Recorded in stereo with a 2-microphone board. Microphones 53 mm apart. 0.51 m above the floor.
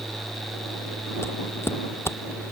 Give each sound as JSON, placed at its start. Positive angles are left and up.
{"t": 1.2, "sound": "footsteps", "side_deg": 50}